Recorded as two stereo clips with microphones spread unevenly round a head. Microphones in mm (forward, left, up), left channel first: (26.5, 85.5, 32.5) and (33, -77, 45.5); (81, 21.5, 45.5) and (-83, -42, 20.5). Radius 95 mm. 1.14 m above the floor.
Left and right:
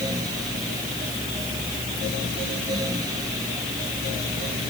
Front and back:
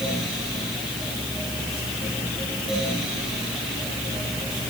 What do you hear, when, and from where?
Only background noise.